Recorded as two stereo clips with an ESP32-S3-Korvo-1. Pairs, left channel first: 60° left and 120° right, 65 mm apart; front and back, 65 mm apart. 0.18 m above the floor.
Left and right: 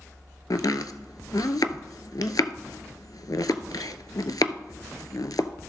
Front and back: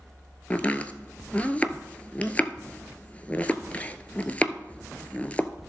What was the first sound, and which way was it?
Chopping, 65° left.